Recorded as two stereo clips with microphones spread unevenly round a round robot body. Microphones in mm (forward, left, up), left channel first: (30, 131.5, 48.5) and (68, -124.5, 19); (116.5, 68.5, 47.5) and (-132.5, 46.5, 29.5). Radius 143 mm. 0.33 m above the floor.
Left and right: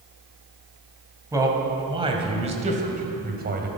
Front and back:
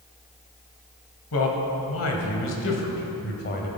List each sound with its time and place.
1.3 s a man speaking: 5° right, 2.5 m; by 3.7 s 45° right, 2 m